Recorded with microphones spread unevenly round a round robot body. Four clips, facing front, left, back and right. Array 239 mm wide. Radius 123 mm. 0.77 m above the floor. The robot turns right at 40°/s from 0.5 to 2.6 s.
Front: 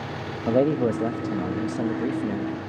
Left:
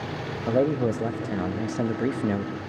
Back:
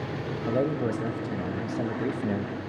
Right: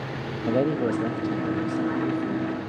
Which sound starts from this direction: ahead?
A man speaking, at 0.5 s.